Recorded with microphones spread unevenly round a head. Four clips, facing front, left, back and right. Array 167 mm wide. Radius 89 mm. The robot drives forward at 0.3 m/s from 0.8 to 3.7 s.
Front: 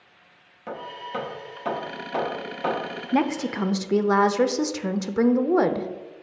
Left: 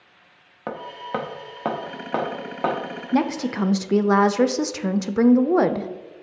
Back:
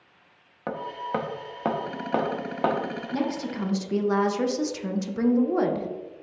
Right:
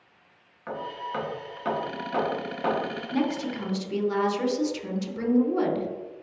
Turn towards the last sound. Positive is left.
turn(degrees=60)